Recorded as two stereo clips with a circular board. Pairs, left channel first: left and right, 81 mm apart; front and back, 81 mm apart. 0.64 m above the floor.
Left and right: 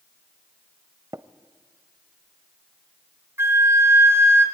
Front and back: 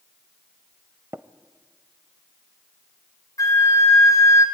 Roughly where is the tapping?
Behind right.